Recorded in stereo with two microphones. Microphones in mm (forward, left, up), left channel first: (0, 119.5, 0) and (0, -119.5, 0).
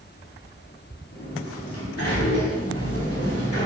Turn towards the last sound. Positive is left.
turn(degrees=75)  # may be behind; listen again after turning